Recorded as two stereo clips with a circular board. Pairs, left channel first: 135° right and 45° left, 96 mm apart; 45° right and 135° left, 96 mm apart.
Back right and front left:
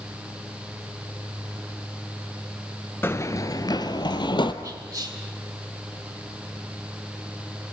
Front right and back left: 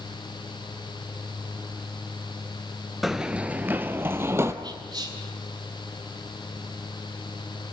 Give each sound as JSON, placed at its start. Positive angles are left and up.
{"t": 3.0, "sound": "running footsteps", "azimuth_deg": -145, "distance_m": 0.6}
{"t": 4.6, "sound": "whispering", "azimuth_deg": 100, "distance_m": 2.0}